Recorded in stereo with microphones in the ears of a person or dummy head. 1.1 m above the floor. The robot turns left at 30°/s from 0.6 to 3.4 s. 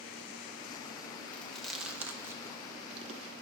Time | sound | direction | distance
1.3 | chewing | 5° left (ahead or behind) | 0.8 m